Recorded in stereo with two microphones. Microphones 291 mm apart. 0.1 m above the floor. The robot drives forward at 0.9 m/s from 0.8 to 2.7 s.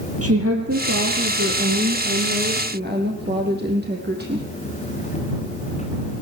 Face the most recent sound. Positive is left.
turn(degrees=-35)  # may be behind; listen again after turning